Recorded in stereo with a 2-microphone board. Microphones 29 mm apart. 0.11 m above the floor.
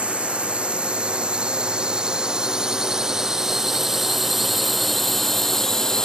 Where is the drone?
40° right (ahead or behind); by 6.1 s 20° left (ahead or behind).